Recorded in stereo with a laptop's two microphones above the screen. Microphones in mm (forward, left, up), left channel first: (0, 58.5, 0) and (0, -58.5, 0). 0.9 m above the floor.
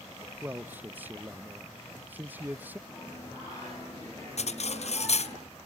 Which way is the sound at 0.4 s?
15° right (ahead or behind).